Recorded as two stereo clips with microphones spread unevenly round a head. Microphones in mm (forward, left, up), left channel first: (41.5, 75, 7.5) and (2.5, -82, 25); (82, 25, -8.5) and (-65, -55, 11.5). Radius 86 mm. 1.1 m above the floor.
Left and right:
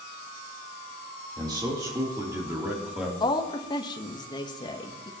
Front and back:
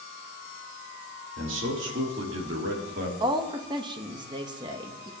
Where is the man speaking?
170° right, 3.5 m; by 3.1 s 170° left, 3 m.